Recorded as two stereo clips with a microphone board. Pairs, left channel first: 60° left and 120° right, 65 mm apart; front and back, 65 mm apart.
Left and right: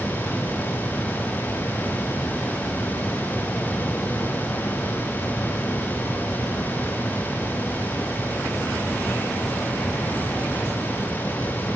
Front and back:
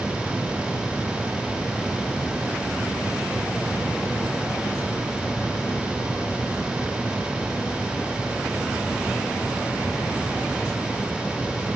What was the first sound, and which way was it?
Only background noise.